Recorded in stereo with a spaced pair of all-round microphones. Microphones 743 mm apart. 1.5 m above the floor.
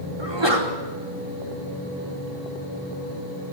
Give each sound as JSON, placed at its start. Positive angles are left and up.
{"t": 0.2, "sound": "a sneeze", "side_deg": -35, "distance_m": 4.5}